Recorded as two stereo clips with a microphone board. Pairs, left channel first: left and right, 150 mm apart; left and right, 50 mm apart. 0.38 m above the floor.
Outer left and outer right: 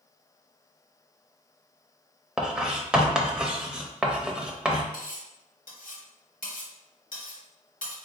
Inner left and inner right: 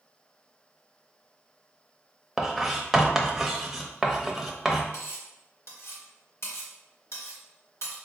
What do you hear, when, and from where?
2.4 s writing: 5° right (ahead or behind), 0.5 m
4.9 s cutlery clinking: 70° left (ahead or behind), 1.1 m